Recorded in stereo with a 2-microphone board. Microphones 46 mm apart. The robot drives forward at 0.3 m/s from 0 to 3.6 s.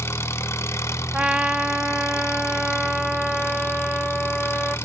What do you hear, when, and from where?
0.0 s an engine running: 65° left (ahead or behind), 1.3 m
1.1 s a trumpet: 20° right (ahead or behind), 0.5 m; by 4.8 s 10° right (ahead or behind), 1.0 m